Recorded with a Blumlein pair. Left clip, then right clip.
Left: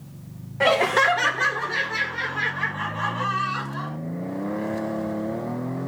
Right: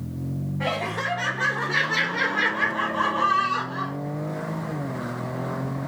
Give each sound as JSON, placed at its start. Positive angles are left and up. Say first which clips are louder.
{"t": 0.6, "sound": "laughter", "louder": "left 9 dB", "azimuth_deg": 60, "distance_m": 0.7}